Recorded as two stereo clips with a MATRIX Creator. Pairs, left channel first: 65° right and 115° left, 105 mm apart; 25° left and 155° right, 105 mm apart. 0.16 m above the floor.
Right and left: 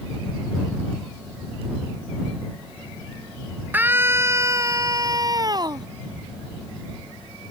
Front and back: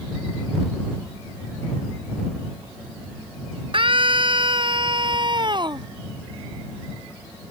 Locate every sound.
3.7 s a scream: straight behind; by 5.9 s 160° left